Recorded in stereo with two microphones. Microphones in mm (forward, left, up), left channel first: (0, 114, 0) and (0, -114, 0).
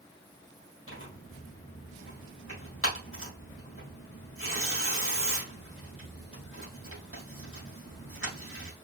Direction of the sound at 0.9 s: 70° left (ahead or behind).